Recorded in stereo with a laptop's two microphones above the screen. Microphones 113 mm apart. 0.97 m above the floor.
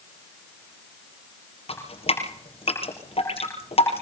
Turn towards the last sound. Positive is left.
turn(degrees=60)  # may be behind; listen again after turning